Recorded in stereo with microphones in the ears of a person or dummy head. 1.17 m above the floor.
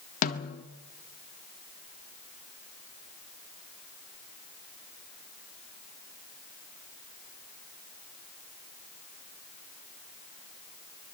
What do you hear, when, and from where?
0.2 s a snare drum: 45° left (ahead or behind), 1.7 m